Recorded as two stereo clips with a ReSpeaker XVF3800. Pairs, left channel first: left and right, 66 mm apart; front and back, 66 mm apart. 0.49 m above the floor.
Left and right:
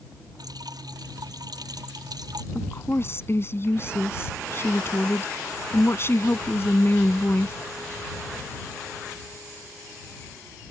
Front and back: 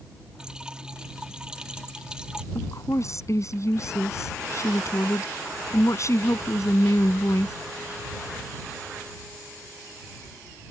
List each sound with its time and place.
0.4 s dripping: 100° right
2.5 s a woman speaking: 40° left